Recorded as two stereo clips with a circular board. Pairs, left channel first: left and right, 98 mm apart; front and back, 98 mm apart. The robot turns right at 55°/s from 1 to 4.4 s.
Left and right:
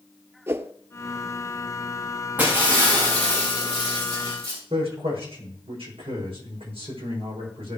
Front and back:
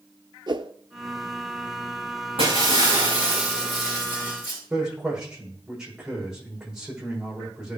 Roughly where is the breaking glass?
Behind.